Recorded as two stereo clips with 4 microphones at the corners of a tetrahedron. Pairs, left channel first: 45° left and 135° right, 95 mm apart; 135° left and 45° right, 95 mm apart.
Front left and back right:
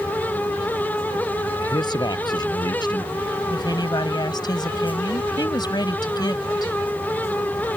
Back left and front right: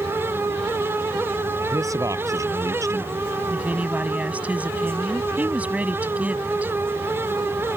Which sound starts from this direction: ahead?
A man speaking, at 1.6 s.